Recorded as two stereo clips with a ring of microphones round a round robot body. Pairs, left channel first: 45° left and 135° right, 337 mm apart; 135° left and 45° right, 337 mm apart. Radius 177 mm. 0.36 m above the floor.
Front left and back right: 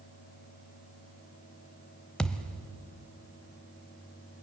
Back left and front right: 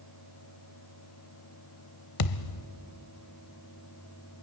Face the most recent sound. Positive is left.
turn(degrees=130)